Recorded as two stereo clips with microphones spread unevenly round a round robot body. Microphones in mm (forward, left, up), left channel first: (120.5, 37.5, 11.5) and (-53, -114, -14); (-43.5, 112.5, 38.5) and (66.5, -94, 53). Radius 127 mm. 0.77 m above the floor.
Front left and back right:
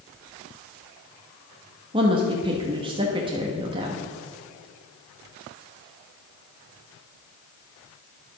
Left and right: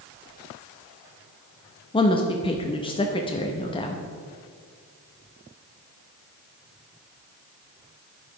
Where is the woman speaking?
170° left, 0.9 m.